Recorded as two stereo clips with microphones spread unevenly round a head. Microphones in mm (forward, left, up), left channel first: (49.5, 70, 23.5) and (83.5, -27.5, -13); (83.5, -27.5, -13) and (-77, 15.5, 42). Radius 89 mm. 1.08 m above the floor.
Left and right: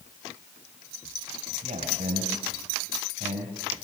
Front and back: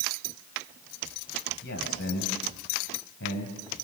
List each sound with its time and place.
1.6 s a man speaking: 45° right, 5.5 m